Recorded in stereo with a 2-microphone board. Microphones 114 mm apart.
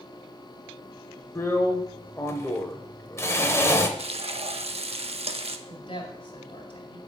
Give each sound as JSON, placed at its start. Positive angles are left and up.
{"t": 1.4, "sound": "a drill", "side_deg": 25, "distance_m": 0.8}
{"t": 4.0, "sound": "frying", "side_deg": -60, "distance_m": 0.5}
{"t": 5.7, "sound": "a woman speaking", "side_deg": 50, "distance_m": 2.0}